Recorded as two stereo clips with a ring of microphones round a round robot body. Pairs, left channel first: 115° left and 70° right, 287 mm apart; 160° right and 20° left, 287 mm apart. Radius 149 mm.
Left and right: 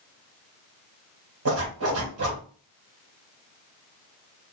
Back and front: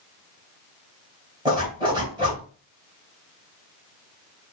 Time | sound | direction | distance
1.4 | a zipper | 50° right | 2.5 m